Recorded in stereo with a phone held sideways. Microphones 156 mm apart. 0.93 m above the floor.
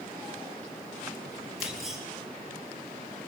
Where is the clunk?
Centre (ahead or behind), 9 m.